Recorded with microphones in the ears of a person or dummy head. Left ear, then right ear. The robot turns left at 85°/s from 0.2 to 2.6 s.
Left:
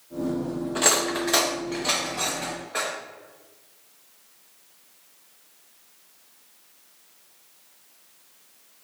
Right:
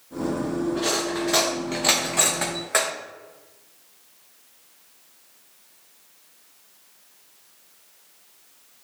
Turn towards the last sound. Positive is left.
turn(degrees=-50)  # may be behind; listen again after turning